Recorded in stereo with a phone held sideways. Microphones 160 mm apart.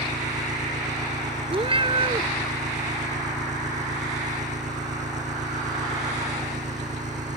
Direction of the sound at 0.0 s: 45° right (ahead or behind).